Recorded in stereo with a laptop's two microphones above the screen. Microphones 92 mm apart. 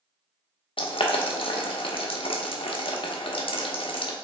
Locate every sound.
0.8 s boiling: 75° left (ahead or behind), 0.8 m